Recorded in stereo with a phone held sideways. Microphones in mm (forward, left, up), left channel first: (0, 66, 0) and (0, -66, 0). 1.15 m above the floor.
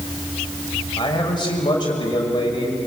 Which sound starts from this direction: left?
A man speaking, at 1.0 s.